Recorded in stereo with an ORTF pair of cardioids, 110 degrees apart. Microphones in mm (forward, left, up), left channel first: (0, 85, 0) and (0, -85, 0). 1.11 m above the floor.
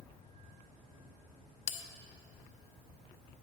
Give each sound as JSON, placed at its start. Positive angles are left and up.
{"t": 1.7, "sound": "a bell", "azimuth_deg": 45, "distance_m": 0.7}